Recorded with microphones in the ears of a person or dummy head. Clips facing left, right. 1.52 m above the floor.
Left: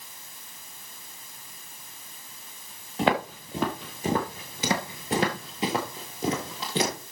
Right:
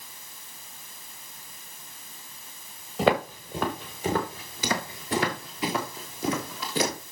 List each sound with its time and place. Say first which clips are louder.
3.0 s footsteps: right 2 dB; 5° right (ahead or behind), 1.6 m; by 7.0 s 25° left (ahead or behind), 2.5 m